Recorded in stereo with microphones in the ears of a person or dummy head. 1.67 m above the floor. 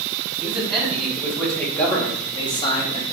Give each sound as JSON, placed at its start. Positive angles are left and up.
{"t": 0.4, "sound": "a man speaking", "side_deg": -5, "distance_m": 3.5}